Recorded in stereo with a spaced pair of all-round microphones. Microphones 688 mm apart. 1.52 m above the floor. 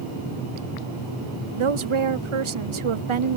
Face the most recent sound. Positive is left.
turn(degrees=-50)  # may be behind; listen again after turning